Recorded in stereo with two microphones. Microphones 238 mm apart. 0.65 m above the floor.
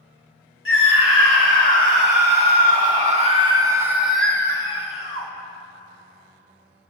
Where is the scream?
55° right (ahead or behind), 3.5 m; by 5.3 s 35° left (ahead or behind), 1.6 m.